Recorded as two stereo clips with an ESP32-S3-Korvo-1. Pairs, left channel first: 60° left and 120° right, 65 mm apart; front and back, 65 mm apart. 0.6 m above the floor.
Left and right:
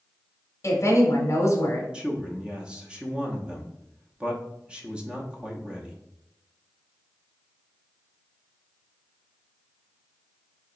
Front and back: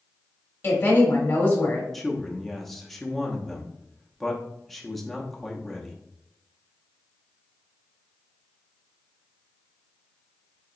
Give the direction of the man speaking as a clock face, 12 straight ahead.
3 o'clock.